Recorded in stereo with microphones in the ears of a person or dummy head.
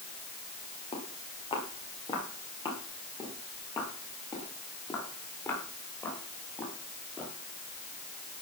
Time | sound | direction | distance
0.9 | footsteps | 30° left (ahead or behind) | 6.5 m